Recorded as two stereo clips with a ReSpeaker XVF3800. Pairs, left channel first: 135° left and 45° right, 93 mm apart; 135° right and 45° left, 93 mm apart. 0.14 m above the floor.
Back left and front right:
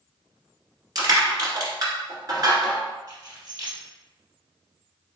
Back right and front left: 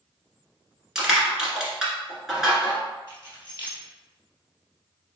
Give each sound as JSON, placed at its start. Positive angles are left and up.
{"t": 0.9, "sound": "crushing", "azimuth_deg": -40, "distance_m": 1.5}
{"t": 3.1, "sound": "keys jangling", "azimuth_deg": -10, "distance_m": 1.9}